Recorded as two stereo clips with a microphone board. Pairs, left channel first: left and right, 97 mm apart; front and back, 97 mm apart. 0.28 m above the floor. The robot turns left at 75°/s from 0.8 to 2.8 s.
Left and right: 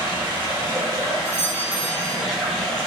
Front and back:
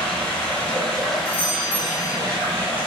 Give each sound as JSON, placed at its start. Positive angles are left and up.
{"t": 0.0, "sound": "running water", "azimuth_deg": -65, "distance_m": 0.9}
{"t": 1.2, "sound": "a doorbell", "azimuth_deg": 90, "distance_m": 1.6}